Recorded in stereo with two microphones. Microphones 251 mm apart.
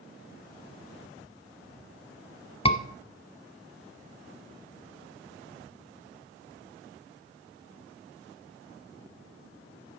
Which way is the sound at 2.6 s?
20° left (ahead or behind).